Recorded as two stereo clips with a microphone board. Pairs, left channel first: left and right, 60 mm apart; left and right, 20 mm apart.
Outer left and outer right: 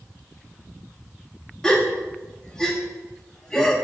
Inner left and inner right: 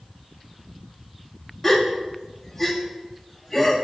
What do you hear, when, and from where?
1.6 s a gasp: 10° left (ahead or behind), 1.1 m